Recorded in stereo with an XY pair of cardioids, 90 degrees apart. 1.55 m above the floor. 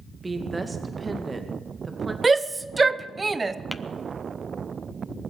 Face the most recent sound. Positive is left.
turn(degrees=-5)